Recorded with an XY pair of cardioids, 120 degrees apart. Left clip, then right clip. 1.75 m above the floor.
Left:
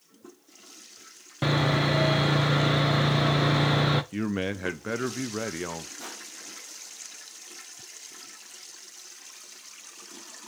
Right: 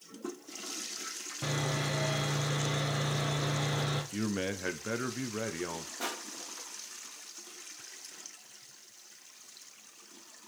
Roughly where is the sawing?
Ahead left.